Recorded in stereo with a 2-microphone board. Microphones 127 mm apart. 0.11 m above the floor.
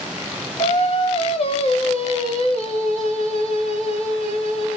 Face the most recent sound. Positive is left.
turn(degrees=55)  # may be behind; listen again after turning